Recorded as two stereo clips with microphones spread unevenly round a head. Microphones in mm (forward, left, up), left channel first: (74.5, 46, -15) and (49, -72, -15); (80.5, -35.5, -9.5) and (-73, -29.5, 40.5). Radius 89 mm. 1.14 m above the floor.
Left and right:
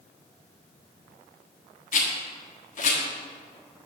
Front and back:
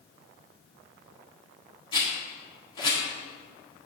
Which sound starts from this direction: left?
A rattle, at 1.9 s.